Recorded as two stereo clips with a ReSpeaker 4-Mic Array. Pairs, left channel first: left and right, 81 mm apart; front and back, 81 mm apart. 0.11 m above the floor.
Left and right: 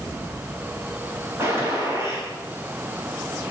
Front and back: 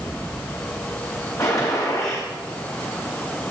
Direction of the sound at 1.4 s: 40° right.